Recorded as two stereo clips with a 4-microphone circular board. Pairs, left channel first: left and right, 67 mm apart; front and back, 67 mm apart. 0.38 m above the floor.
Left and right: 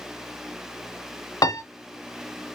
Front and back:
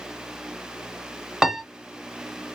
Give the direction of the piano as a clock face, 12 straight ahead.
9 o'clock.